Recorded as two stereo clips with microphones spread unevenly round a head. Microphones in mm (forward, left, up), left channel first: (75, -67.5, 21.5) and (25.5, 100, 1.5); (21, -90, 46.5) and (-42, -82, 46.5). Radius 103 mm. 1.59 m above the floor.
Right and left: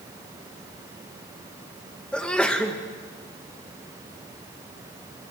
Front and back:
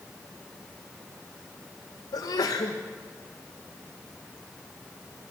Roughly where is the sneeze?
Ahead.